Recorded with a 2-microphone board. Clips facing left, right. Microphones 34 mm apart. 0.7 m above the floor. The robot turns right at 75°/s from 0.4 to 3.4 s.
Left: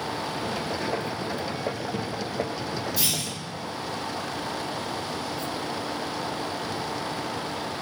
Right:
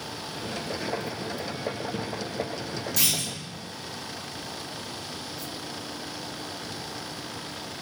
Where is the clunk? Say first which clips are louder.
Right 4 dB; 80° right, 2.5 m; by 3.3 s 75° right (ahead or behind), 2.5 m.